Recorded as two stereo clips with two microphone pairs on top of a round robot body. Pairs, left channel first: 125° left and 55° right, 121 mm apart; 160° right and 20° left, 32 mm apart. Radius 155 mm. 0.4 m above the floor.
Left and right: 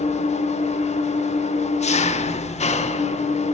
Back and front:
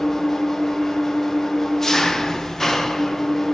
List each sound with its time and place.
0.0 s an engine running: 125° left, 0.9 m